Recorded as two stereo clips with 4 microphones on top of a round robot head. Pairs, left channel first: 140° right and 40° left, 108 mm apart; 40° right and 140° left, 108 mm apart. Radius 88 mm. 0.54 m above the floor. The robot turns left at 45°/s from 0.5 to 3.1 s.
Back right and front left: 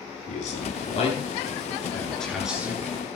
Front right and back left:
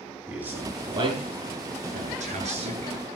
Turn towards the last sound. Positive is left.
turn(degrees=95)